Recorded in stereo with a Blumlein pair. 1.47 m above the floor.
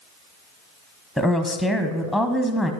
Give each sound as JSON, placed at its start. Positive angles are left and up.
{"t": 1.2, "sound": "a woman speaking", "azimuth_deg": -5, "distance_m": 0.8}